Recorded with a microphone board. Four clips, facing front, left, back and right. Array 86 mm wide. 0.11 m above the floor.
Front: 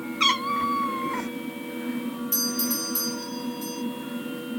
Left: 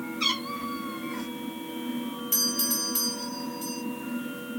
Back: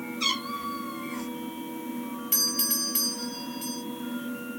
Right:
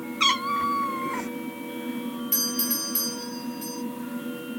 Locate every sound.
0.2 s a cat meowing: 40° right, 0.6 m
2.3 s a doorbell: 170° right, 3.5 m